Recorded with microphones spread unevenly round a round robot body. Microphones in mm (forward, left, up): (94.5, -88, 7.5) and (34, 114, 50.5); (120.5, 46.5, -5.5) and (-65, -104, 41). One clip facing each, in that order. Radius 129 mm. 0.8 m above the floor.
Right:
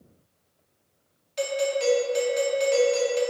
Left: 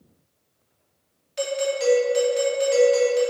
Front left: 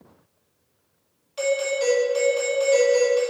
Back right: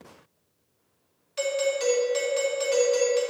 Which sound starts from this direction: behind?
A doorbell, at 1.4 s.